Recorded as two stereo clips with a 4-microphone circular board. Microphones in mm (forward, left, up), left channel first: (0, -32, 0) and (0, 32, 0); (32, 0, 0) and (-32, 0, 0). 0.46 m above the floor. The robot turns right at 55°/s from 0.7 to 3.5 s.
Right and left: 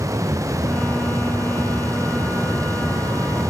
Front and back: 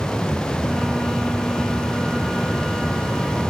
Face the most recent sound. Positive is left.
No sound to turn to.